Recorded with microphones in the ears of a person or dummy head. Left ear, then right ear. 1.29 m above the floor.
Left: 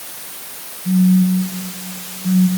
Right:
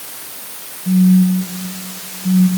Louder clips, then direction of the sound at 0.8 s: Right 2 dB; 65° left (ahead or behind).